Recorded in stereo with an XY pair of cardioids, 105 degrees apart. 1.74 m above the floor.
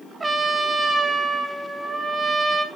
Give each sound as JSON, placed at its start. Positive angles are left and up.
{"t": 0.2, "sound": "a trumpet", "azimuth_deg": -20, "distance_m": 3.5}